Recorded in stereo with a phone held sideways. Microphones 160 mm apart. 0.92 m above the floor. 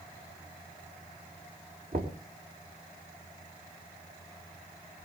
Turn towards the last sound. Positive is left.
turn(degrees=-70)  # may be behind; listen again after turning